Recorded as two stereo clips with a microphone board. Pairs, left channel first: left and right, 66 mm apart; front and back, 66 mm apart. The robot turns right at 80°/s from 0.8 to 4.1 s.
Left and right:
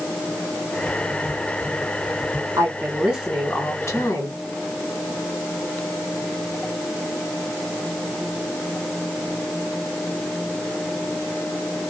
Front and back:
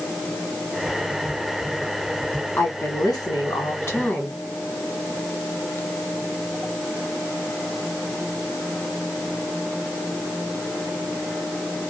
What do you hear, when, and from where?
2.6 s a woman speaking: 55° right, 1.7 m; by 4.4 s 70° left, 1.7 m